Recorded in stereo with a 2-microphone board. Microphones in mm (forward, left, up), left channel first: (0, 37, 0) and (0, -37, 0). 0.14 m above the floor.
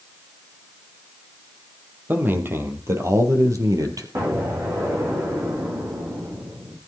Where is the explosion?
40° right (ahead or behind), 4.5 m.